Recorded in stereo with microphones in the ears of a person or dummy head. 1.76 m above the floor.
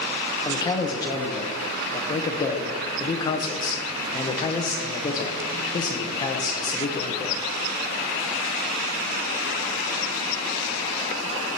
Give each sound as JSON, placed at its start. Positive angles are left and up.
{"t": 0.5, "sound": "a man speaking", "side_deg": 15, "distance_m": 1.2}